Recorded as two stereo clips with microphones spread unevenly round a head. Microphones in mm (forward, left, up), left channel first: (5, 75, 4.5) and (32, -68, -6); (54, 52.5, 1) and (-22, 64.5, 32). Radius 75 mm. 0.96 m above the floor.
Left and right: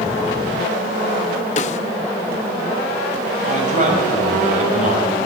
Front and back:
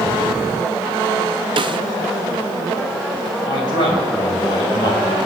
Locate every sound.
1.6 s a snare drum: 145° left, 1.2 m
3.5 s a man speaking: 40° right, 6 m